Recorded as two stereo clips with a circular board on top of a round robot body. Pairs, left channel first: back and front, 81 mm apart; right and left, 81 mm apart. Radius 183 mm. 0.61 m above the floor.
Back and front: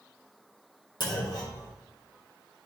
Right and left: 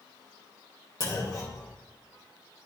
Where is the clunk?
140° right, 2.5 m.